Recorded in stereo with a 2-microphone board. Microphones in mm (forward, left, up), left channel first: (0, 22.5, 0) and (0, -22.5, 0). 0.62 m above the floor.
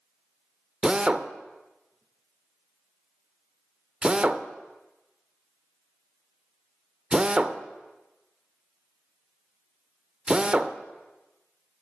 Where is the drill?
20° right (ahead or behind), 0.5 m.